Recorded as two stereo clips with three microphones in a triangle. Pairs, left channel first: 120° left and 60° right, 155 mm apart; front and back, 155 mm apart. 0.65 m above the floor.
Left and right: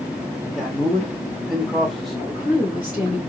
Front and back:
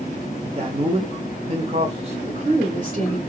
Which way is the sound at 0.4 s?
150° right.